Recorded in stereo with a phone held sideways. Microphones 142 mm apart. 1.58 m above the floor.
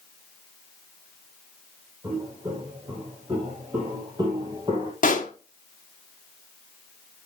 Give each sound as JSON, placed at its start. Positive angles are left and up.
{"t": 2.0, "sound": "footsteps", "side_deg": -30, "distance_m": 4.5}
{"t": 5.0, "sound": "a pop", "side_deg": 65, "distance_m": 1.3}